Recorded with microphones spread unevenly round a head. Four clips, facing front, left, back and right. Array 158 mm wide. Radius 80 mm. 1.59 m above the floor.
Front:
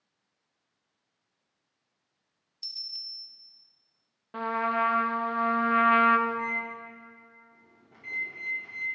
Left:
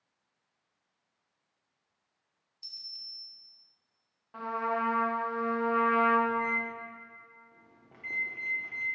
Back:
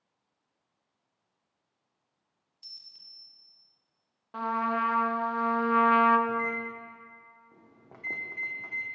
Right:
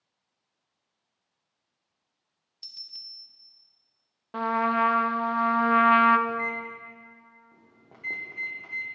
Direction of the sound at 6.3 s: 155° right.